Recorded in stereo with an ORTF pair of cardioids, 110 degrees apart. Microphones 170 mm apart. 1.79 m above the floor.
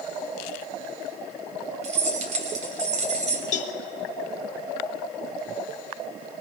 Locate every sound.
1.8 s keys jangling: 45° right, 3.5 m
3.5 s a cowbell: 50° left, 2.0 m